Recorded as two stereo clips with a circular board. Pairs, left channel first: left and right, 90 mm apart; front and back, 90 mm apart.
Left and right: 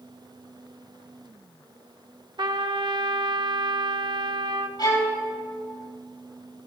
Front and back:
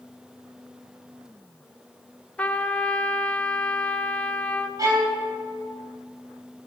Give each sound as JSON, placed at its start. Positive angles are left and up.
{"t": 2.4, "sound": "a trumpet", "azimuth_deg": -75, "distance_m": 0.6}
{"t": 4.8, "sound": "a violin", "azimuth_deg": 130, "distance_m": 3.0}